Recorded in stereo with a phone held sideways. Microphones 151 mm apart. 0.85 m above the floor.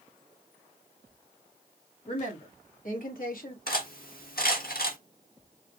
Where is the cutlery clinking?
75° left (ahead or behind), 1.2 m.